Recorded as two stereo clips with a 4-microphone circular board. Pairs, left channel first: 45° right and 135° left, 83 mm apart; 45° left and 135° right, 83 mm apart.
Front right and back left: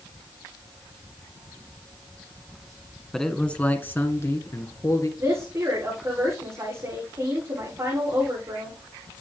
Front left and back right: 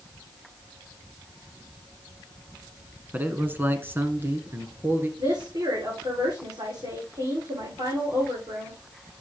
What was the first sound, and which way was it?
A man speaking, 125° right.